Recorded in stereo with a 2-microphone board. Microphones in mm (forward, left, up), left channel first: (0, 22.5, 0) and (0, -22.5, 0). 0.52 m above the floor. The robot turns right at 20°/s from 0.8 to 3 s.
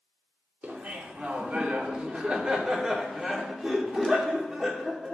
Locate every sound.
0.6 s laughter: 65° right, 1.3 m; by 5.1 s 20° right, 1.3 m